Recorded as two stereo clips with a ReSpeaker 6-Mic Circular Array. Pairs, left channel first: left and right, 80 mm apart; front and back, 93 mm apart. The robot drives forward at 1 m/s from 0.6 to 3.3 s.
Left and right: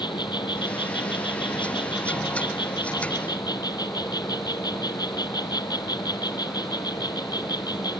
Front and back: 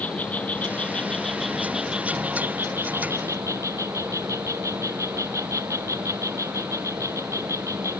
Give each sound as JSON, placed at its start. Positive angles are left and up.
{"t": 0.0, "sound": "an insect", "azimuth_deg": 70}